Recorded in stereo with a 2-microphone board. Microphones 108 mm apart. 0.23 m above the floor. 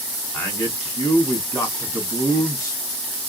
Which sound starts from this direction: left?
A man speaking, at 0.3 s.